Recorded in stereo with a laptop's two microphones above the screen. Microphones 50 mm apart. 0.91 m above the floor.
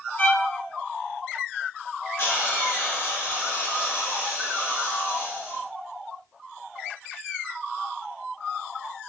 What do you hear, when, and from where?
0.2 s a violin: 45° left (ahead or behind), 0.9 m
2.2 s a hiss: 60° left (ahead or behind), 1.8 m